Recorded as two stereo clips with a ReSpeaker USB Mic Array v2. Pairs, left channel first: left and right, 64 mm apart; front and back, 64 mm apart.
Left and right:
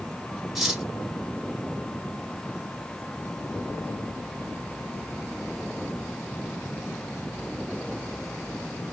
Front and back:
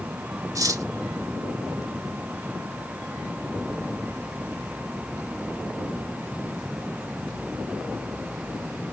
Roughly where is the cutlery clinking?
Behind.